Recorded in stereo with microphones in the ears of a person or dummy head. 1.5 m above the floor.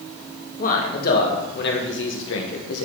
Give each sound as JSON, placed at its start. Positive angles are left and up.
{"t": 0.6, "sound": "a man speaking", "side_deg": 55, "distance_m": 2.5}